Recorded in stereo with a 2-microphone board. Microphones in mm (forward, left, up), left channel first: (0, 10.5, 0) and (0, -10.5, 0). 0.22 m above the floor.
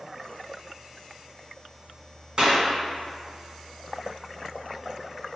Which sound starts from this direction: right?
A clap, at 2.4 s.